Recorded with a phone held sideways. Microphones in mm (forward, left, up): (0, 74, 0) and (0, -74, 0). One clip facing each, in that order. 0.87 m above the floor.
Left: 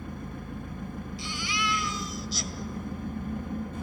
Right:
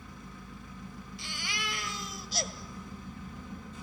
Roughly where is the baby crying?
Right.